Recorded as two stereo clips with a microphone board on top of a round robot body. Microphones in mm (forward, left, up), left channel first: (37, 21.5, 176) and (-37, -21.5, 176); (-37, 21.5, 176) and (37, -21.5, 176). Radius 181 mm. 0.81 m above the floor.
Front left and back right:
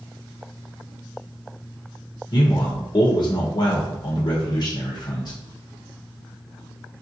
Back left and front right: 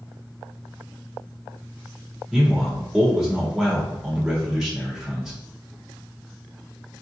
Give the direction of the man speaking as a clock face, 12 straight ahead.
10 o'clock.